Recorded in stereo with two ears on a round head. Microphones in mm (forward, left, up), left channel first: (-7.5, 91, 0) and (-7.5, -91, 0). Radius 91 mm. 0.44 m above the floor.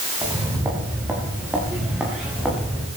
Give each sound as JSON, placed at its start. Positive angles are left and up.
{"t": 0.2, "sound": "footsteps", "side_deg": -15, "distance_m": 6.5}